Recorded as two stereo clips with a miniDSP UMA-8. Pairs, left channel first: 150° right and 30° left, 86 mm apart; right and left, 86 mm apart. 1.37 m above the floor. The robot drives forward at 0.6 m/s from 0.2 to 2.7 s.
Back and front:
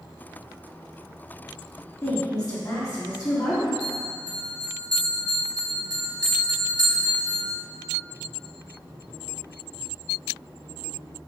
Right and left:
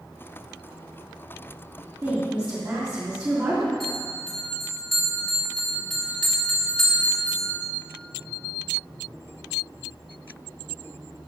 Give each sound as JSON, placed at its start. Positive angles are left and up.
{"t": 2.0, "sound": "a woman speaking", "azimuth_deg": 160, "distance_m": 2.5}
{"t": 3.8, "sound": "a bell", "azimuth_deg": -5, "distance_m": 2.5}